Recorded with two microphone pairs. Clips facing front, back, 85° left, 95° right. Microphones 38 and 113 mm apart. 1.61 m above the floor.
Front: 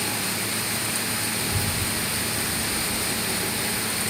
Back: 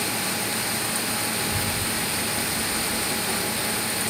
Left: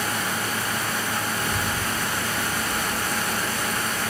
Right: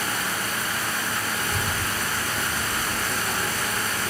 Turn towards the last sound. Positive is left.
turn(degrees=-145)